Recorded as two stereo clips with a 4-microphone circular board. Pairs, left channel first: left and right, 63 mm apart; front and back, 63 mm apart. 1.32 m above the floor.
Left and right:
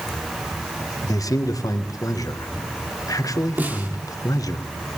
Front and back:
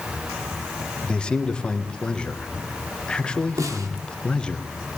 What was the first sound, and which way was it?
A man speaking, 75° left.